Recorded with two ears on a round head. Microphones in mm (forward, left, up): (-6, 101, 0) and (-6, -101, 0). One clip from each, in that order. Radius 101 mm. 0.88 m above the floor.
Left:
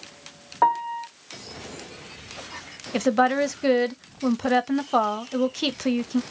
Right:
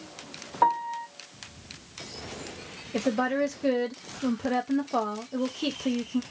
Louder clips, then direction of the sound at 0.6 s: Left 3 dB; 10° left (ahead or behind).